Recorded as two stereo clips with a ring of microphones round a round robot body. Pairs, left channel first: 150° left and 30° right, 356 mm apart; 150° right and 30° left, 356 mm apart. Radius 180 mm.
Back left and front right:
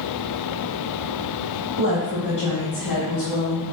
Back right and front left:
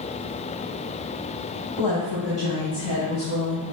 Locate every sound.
1.8 s a woman speaking: 100° left, 3.5 m; by 3.6 s 85° left, 2.5 m